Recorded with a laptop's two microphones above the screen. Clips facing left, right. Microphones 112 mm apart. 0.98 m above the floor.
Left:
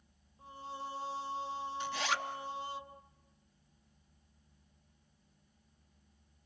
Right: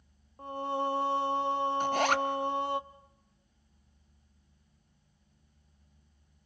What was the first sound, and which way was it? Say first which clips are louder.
Singing: right 12 dB; 65° right (ahead or behind).